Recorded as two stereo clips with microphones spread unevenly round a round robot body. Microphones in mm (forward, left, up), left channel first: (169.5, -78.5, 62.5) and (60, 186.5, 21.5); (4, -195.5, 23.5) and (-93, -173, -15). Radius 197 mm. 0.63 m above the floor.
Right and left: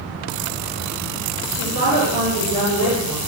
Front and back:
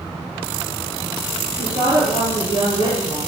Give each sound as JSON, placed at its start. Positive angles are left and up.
{"t": 1.6, "sound": "a woman speaking", "azimuth_deg": 115, "distance_m": 8.5}